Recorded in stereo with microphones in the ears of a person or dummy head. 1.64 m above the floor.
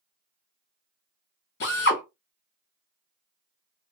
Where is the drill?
60° left (ahead or behind), 1.8 m.